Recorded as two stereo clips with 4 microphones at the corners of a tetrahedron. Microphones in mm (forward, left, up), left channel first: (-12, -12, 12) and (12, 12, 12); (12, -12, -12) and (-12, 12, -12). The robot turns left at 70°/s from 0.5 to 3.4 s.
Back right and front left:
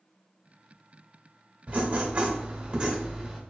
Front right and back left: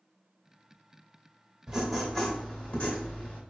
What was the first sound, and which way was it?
Writing, 70° left.